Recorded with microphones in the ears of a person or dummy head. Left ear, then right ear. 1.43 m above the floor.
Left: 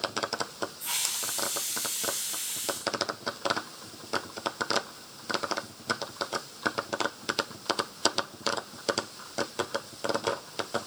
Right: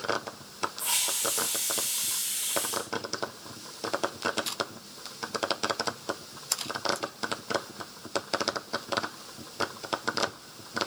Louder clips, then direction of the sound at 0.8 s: Right 3 dB; 10° right (ahead or behind).